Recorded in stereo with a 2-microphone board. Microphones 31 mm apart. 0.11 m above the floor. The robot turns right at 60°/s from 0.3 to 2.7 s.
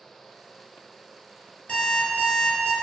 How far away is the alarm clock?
About 1.0 m.